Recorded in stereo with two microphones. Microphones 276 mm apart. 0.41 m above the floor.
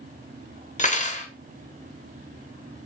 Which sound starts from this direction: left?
Cutlery clinking, at 0.8 s.